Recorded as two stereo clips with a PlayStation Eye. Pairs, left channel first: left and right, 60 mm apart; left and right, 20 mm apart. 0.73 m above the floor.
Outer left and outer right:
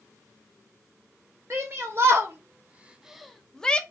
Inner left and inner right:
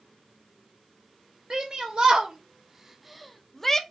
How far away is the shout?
About 0.9 m.